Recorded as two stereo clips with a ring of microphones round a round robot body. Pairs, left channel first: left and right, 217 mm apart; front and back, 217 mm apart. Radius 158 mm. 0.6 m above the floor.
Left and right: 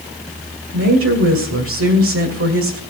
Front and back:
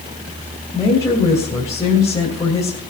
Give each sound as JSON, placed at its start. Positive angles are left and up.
{"t": 0.7, "sound": "a woman speaking", "azimuth_deg": -80, "distance_m": 2.5}